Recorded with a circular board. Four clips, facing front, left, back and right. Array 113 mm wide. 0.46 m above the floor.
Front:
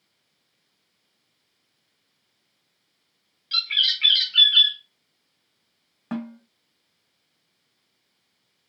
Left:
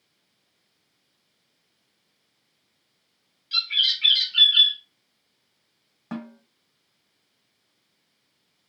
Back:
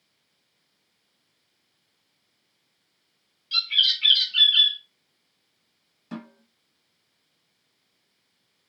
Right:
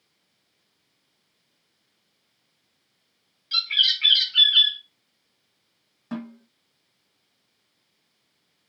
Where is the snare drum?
20° left, 1.2 m.